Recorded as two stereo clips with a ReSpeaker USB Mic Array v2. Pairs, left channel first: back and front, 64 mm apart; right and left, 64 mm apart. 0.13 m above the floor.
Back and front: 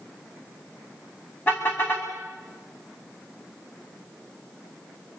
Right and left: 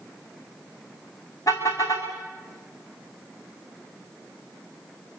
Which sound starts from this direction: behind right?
A car horn, at 1.5 s.